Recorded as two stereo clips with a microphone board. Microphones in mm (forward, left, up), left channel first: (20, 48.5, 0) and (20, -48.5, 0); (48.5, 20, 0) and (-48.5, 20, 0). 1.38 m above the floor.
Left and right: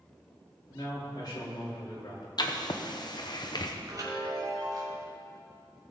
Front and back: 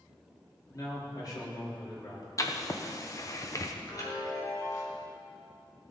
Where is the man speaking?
45° left, 3 m.